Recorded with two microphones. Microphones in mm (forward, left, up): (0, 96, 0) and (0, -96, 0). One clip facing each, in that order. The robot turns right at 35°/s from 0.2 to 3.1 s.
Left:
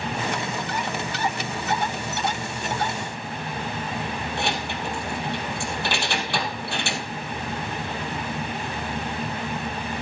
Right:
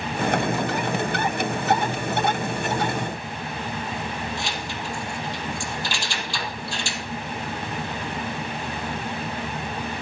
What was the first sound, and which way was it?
Keys jangling, 60° left (ahead or behind).